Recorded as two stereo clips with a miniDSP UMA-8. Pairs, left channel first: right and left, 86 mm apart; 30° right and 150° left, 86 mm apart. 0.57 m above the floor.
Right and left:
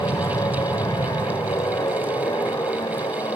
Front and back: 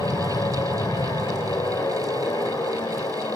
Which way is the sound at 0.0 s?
65° right.